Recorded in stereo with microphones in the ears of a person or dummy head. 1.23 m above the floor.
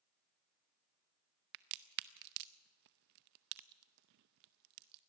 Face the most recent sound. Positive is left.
turn(degrees=-55)  # may be behind; listen again after turning